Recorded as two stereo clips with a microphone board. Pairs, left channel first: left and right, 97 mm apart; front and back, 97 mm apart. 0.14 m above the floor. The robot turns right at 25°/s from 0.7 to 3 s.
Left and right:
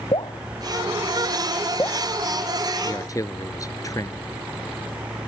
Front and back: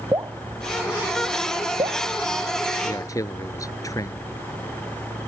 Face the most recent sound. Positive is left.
turn(degrees=45)